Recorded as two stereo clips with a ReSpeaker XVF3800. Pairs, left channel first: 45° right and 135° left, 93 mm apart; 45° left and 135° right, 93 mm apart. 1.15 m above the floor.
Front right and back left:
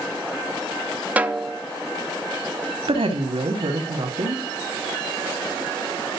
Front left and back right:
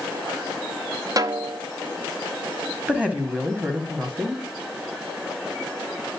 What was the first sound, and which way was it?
A snare drum, 155° right.